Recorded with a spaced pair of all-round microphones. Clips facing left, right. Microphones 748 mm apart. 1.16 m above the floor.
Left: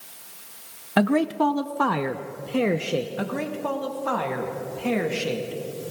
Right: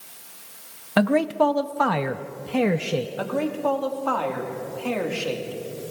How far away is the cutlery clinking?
No cutlery clinking in this recording.